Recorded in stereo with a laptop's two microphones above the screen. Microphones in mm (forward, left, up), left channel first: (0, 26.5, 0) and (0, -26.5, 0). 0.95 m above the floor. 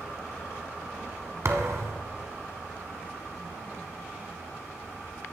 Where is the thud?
60° right (ahead or behind), 1.6 m.